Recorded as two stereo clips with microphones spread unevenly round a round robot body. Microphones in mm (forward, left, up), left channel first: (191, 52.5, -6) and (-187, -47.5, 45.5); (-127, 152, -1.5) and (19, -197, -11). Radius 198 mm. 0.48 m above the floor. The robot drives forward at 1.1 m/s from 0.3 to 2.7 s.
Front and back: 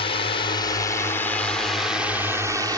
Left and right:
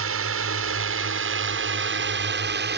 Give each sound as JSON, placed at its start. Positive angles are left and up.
{"t": 0.0, "sound": "a drone", "azimuth_deg": -45}